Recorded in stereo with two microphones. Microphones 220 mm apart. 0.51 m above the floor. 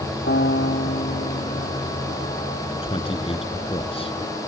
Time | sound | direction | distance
0.3 | a piano | 50° left (ahead or behind) | ?
2.8 | a man speaking | 25° left (ahead or behind) | ?